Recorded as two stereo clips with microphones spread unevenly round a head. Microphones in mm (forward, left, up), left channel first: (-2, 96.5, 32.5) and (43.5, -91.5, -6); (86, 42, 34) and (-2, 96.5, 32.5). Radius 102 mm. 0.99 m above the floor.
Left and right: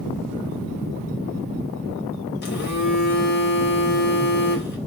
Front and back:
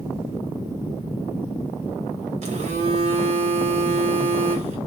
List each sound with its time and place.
2.4 s a phone buzzing: 150° left, 1.1 m